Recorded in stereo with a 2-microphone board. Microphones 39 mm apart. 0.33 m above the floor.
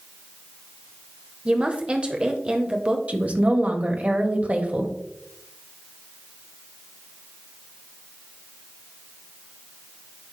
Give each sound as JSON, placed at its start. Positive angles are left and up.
{"t": 1.4, "sound": "a woman speaking", "side_deg": -25, "distance_m": 0.9}
{"t": 3.1, "sound": "a woman speaking", "side_deg": -40, "distance_m": 1.4}